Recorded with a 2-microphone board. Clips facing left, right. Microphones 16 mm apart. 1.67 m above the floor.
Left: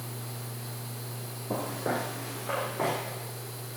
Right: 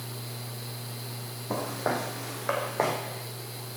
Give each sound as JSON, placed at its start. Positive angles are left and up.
{"t": 1.5, "sound": "footsteps", "side_deg": -60, "distance_m": 4.0}